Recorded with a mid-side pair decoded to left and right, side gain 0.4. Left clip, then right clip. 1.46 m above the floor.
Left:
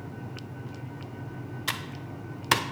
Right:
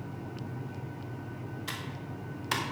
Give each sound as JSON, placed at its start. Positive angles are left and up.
{"t": 1.7, "sound": "typing on a keyboard", "azimuth_deg": 60, "distance_m": 0.8}